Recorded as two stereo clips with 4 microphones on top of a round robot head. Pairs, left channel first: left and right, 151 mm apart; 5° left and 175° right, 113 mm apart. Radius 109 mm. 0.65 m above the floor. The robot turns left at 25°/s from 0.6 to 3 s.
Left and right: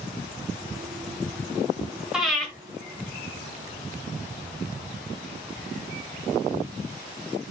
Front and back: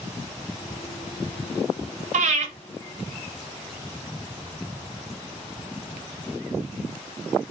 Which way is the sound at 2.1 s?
175° right.